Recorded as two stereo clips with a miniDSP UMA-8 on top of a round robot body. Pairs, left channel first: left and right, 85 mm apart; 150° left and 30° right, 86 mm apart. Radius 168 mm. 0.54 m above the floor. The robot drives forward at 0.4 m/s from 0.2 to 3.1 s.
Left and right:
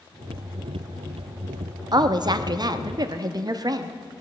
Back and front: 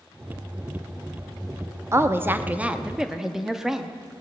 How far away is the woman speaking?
About 1.0 m.